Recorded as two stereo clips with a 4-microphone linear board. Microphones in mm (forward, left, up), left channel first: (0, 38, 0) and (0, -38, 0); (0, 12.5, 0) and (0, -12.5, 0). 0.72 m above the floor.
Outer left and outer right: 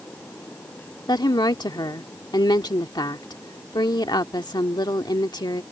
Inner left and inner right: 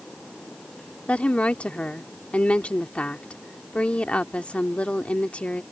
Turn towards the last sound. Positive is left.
turn(degrees=65)  # may be behind; listen again after turning